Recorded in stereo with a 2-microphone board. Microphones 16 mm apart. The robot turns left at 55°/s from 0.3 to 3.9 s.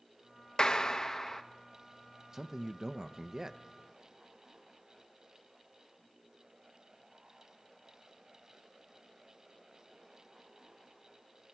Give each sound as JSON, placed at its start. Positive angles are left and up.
{"t": 0.6, "sound": "a clap", "azimuth_deg": 65, "distance_m": 0.7}
{"t": 2.3, "sound": "a man speaking", "azimuth_deg": -50, "distance_m": 0.5}